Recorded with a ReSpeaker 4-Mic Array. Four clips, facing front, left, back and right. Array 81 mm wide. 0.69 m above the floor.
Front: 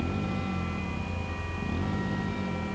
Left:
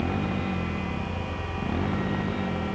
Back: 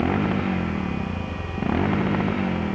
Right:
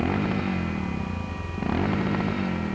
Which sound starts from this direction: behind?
A motorcycle, at 0.0 s.